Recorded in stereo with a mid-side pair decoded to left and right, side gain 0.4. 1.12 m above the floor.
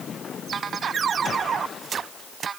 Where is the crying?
I don't hear crying.